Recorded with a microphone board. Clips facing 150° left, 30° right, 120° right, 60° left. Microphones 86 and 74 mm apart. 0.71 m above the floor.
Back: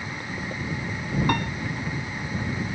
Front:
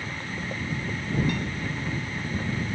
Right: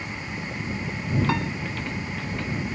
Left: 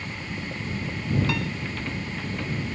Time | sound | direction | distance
1.3 | a piano | straight behind | ?